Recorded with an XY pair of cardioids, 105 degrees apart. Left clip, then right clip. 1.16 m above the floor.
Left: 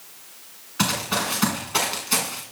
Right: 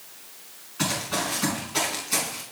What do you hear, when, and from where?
0.8 s running footsteps: 55° left, 6.5 m